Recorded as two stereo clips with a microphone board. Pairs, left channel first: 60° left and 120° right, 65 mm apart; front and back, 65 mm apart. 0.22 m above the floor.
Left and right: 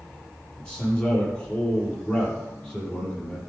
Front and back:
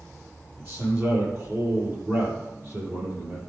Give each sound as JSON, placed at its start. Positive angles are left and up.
{"t": 0.6, "sound": "a man speaking", "azimuth_deg": 135, "distance_m": 7.0}